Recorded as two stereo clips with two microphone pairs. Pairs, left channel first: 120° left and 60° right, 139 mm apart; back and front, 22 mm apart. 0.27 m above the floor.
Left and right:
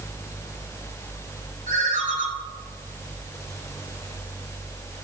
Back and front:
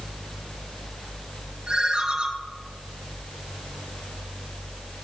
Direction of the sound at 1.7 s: 50° right.